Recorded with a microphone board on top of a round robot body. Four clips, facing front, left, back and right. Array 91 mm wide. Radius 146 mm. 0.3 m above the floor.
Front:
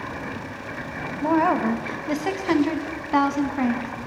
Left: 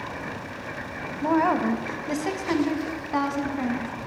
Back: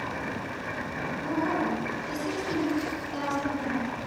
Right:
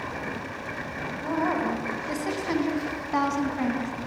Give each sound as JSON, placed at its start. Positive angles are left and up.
{"t": 1.2, "sound": "a woman speaking", "azimuth_deg": 30, "distance_m": 3.5}